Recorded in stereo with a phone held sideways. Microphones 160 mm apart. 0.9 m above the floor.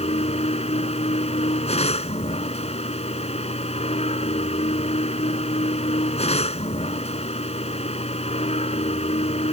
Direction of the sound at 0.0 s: 40° left (ahead or behind).